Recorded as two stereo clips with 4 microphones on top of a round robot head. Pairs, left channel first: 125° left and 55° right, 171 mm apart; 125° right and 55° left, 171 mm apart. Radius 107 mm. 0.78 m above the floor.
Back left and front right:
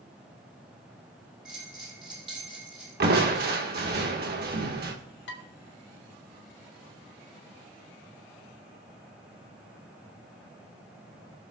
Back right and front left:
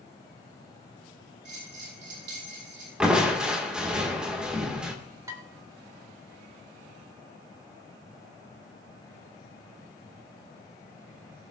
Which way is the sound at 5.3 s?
130° left.